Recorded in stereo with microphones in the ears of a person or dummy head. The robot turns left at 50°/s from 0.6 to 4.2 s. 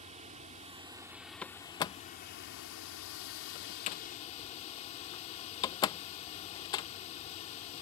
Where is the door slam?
Centre (ahead or behind); by 6.9 s 25° left (ahead or behind).